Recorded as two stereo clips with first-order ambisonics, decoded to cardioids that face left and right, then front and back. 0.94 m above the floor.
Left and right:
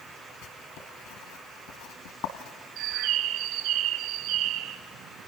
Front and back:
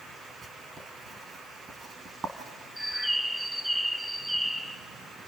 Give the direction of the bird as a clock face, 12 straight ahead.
3 o'clock.